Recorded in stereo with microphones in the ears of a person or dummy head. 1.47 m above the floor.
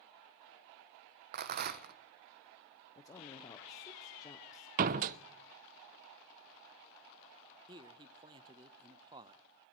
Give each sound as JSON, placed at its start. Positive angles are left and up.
{"t": 1.3, "sound": "a rattle", "side_deg": -50, "distance_m": 0.8}
{"t": 3.0, "sound": "a woman speaking", "side_deg": 20, "distance_m": 0.7}
{"t": 4.8, "sound": "a door slam", "side_deg": -45, "distance_m": 0.6}
{"t": 7.7, "sound": "a man speaking", "side_deg": -25, "distance_m": 0.7}